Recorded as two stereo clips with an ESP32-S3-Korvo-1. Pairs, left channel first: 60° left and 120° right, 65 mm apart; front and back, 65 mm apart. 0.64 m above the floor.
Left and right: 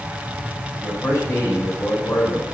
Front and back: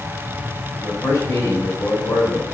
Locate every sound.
0.8 s a man speaking: 20° left, 3 m